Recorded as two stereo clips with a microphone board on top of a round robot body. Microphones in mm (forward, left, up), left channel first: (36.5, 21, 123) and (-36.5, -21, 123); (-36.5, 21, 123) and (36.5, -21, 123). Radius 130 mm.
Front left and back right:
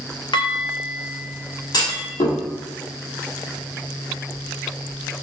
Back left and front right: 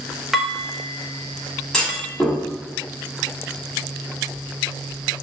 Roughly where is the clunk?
Ahead left.